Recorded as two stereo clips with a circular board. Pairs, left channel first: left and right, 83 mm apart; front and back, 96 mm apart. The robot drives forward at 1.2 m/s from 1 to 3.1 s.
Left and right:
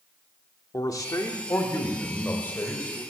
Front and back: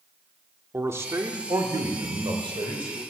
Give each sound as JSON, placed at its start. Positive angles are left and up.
{"t": 0.7, "sound": "a man speaking", "azimuth_deg": 120, "distance_m": 1.5}